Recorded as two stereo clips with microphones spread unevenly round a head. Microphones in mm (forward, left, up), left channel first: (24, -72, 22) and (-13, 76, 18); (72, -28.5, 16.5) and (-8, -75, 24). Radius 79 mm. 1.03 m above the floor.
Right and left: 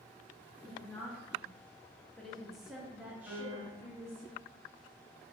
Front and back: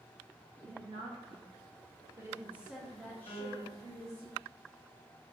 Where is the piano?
15° left, 1.6 m.